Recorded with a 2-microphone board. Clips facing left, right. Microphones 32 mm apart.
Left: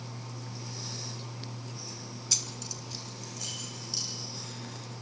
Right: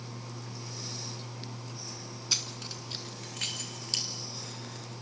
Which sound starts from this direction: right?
Keys jangling, at 2.3 s.